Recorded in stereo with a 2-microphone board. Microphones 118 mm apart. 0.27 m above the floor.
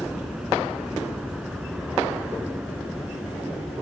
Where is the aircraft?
5° right (ahead or behind).